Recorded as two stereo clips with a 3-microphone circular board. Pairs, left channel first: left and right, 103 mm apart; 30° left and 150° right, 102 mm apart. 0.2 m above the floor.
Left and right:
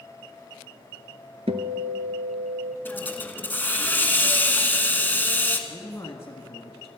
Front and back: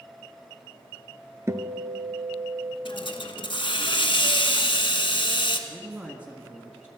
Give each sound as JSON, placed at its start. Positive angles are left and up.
{"t": 1.5, "sound": "a guitar", "azimuth_deg": -85, "distance_m": 1.1}
{"t": 2.9, "sound": "a hiss", "azimuth_deg": 25, "distance_m": 1.2}
{"t": 5.7, "sound": "a man speaking", "azimuth_deg": 135, "distance_m": 1.5}